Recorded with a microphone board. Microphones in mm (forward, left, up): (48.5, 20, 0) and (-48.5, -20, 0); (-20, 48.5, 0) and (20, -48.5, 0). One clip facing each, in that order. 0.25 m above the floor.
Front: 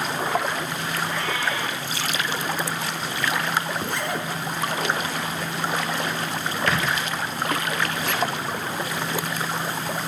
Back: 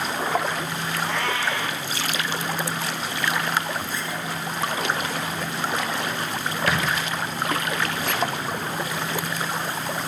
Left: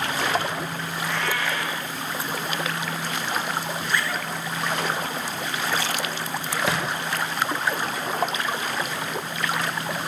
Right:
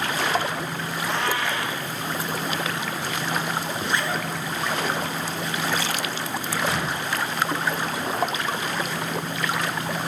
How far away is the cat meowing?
About 7 m.